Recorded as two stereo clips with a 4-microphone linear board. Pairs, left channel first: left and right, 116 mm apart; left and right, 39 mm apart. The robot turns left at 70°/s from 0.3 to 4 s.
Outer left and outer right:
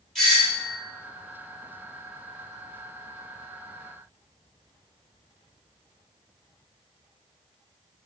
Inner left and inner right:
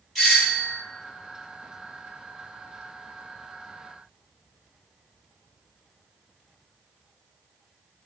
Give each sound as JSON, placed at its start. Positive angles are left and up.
{"t": 0.1, "sound": "a doorbell", "azimuth_deg": 180, "distance_m": 2.5}